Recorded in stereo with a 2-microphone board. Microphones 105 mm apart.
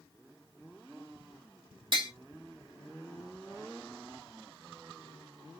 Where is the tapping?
50° right (ahead or behind), 1.5 m.